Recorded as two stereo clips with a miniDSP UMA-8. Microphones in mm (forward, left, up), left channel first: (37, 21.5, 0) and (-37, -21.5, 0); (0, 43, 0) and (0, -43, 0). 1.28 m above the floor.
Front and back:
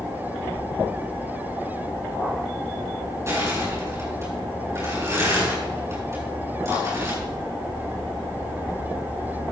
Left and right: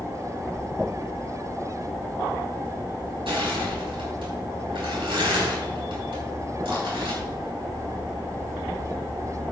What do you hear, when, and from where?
3.3 s crushing: 90° right, 7 m